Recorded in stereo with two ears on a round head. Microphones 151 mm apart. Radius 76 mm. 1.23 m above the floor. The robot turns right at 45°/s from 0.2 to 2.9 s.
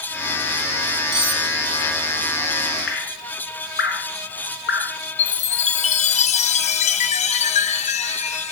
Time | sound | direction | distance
1.1 | cutlery clinking | centre (ahead or behind) | 3.5 m
2.9 | dripping | 65° left (ahead or behind) | 3 m
5.2 | a chime | 40° left (ahead or behind) | 0.8 m